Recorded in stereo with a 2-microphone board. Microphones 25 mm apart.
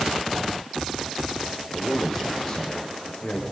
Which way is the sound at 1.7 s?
15° left (ahead or behind).